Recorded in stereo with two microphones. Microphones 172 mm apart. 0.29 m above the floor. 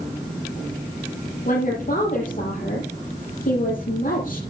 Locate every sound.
1.4 s a woman speaking: 55° left (ahead or behind), 6.5 m